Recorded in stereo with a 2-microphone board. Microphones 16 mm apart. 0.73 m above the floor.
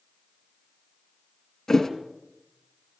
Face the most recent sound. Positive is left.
turn(degrees=20)  # may be behind; listen again after turning